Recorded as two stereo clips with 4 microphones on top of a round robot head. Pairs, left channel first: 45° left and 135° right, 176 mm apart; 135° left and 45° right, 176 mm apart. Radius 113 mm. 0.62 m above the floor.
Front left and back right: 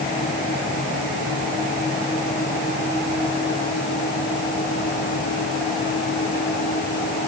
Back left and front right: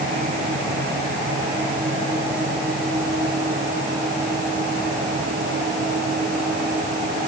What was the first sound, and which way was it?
Only background noise.